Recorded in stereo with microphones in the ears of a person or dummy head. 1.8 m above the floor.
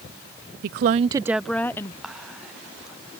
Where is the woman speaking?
55° right (ahead or behind); by 1.9 s 15° left (ahead or behind).